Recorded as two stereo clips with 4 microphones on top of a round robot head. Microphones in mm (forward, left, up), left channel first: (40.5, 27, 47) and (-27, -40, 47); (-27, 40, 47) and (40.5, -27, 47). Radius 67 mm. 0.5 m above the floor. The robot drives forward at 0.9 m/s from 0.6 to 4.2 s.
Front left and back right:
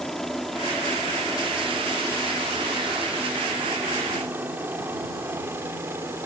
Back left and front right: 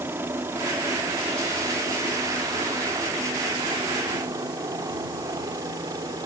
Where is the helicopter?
35° right; by 6.3 s 80° right.